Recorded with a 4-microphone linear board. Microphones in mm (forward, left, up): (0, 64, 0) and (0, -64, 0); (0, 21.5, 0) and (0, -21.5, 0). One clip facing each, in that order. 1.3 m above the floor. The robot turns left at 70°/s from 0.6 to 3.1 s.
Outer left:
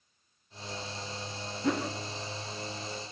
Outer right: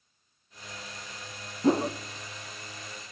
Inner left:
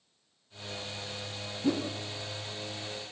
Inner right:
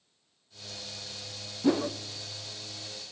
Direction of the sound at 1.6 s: 30° right (ahead or behind).